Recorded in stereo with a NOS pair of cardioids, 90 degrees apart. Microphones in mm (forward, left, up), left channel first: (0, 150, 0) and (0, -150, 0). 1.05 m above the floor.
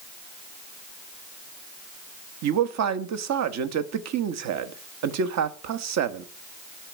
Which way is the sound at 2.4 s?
60° right.